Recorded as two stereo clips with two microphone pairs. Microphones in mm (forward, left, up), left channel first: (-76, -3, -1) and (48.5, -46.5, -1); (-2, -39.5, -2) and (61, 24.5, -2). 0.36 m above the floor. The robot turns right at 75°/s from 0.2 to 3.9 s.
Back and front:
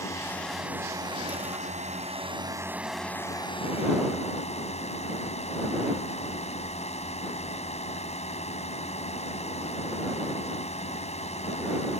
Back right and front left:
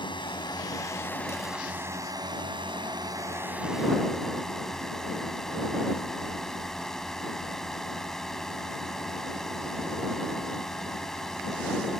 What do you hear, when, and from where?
0.0 s a drone: 135° right; by 12.0 s 140° left